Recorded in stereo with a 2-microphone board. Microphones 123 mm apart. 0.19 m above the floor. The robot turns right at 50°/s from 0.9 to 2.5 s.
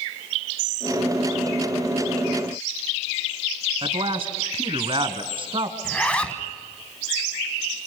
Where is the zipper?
10° left (ahead or behind), 1.3 m.